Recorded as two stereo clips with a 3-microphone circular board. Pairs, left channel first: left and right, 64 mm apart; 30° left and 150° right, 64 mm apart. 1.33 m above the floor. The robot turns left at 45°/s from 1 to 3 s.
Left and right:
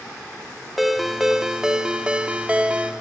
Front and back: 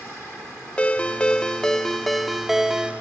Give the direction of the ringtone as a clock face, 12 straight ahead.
12 o'clock.